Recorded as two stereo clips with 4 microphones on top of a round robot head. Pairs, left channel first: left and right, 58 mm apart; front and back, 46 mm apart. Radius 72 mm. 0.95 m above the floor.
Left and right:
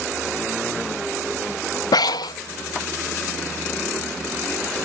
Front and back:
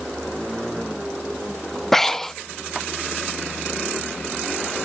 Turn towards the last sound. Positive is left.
turn(degrees=80)